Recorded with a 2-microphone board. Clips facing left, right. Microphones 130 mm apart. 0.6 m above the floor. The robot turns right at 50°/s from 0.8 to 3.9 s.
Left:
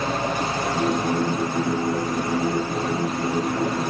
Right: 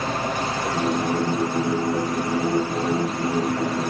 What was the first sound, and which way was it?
Only background noise.